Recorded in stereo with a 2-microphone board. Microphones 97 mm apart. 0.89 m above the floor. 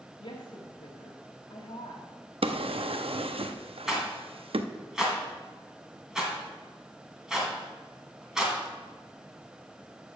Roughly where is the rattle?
Centre.